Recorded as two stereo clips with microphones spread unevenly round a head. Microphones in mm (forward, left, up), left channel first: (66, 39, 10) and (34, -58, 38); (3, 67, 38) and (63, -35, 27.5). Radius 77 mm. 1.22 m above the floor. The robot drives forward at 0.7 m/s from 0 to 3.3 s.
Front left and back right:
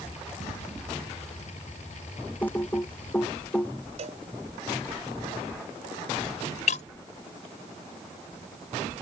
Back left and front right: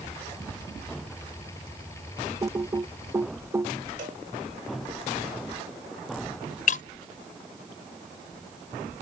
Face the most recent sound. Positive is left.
turn(degrees=110)